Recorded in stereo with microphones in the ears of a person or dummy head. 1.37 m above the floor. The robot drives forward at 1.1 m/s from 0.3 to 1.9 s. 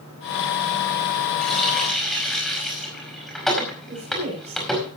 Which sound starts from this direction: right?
A woman speaking, at 3.9 s.